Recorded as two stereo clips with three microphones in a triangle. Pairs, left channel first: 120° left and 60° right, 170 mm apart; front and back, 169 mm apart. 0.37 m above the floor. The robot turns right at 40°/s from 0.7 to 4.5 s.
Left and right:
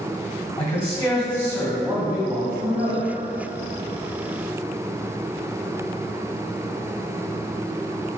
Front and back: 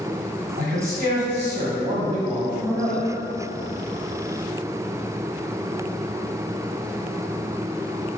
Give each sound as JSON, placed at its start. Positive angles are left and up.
{"t": 0.6, "sound": "a man speaking", "azimuth_deg": 165, "distance_m": 1.6}